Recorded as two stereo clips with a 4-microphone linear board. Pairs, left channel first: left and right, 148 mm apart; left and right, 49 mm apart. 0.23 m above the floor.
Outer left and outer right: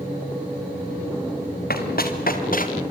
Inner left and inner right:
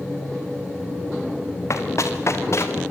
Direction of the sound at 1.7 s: 75° left (ahead or behind).